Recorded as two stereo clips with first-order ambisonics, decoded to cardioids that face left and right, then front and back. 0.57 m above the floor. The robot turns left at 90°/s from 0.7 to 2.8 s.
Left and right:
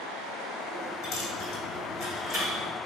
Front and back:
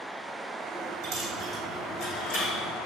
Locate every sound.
1.0 s a dropped coin: 135° left, 2.5 m; by 2.7 s 15° right, 2.5 m